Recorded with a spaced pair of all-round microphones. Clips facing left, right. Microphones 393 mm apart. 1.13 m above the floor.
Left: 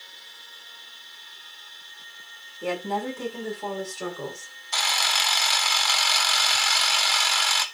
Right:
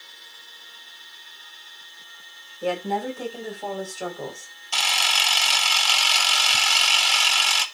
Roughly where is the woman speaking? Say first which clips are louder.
Right 2 dB; centre.